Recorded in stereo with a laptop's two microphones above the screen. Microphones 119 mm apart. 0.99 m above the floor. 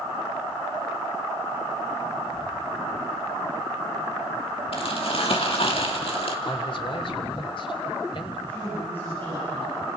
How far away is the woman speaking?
About 7.5 m.